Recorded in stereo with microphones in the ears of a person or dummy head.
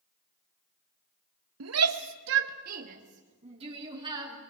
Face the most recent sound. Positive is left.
turn(degrees=-25)  # may be behind; listen again after turning